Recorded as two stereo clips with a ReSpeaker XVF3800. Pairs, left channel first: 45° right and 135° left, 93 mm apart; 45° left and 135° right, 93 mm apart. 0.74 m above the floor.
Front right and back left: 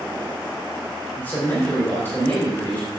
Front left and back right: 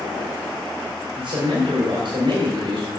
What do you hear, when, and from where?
1.2 s a man speaking: 110° right, 3 m